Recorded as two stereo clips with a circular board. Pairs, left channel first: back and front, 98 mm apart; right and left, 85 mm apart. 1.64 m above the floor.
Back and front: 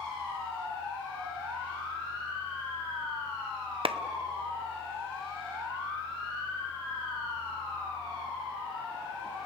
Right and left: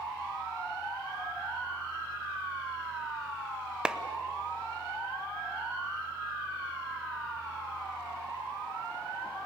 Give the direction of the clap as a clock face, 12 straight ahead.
12 o'clock.